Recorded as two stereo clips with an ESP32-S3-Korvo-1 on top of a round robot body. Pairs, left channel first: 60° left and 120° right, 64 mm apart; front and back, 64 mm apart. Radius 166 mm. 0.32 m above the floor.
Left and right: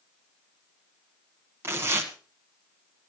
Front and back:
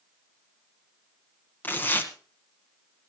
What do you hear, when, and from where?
1.6 s tearing paper: 65° right, 1.2 m